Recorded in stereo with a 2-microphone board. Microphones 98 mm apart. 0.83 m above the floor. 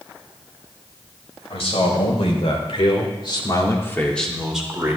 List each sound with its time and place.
1.5 s a man speaking: 85° left, 4 m; by 5.0 s 20° right (ahead or behind), 2.5 m